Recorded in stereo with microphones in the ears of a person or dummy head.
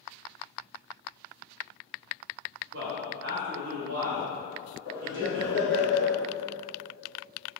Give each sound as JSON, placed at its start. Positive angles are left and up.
{"t": 2.7, "sound": "a man speaking", "side_deg": -60, "distance_m": 0.8}
{"t": 4.8, "sound": "laughter", "side_deg": -25, "distance_m": 1.2}